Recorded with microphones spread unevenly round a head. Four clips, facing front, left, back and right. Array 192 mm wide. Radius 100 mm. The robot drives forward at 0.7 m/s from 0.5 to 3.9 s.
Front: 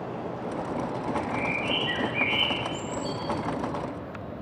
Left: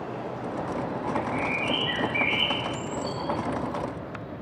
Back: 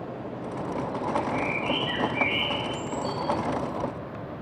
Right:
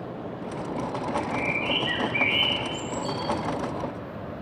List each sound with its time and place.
1.1 s a bird: 25° right, 3 m; by 3.3 s 45° right, 1.5 m